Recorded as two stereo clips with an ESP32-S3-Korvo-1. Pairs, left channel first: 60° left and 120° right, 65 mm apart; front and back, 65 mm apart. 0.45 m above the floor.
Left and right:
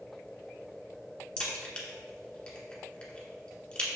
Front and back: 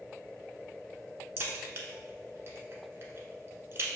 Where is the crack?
130° left, 1.1 m.